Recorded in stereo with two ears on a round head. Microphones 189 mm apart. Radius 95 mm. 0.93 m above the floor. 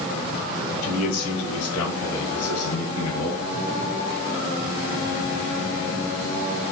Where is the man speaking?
80° left, 3 m; by 3.5 s 75° left (ahead or behind), 6 m.